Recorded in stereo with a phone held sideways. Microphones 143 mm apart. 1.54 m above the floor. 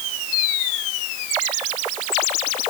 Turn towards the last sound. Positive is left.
No sound to turn to.